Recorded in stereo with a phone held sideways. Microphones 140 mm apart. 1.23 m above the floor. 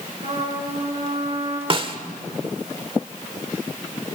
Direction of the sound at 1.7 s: 40° right (ahead or behind).